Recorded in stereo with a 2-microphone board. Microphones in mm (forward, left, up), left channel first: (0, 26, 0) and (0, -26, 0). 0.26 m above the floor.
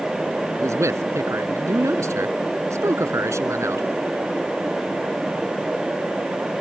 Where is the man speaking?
70° right (ahead or behind).